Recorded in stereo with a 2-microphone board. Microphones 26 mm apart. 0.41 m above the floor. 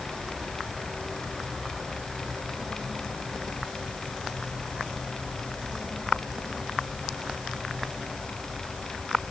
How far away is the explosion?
I don't hear an explosion.